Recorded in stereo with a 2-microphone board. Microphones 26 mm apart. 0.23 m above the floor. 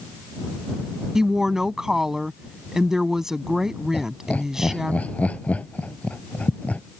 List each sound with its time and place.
1.1 s a woman speaking: 20° right (ahead or behind)
3.9 s laughter: 70° left (ahead or behind)